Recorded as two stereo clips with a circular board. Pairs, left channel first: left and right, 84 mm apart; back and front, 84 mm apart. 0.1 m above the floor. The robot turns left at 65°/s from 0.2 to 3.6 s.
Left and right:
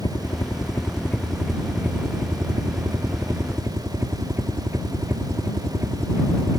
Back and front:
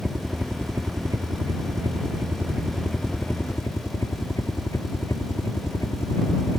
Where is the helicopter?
85° left; by 6.6 s 140° right.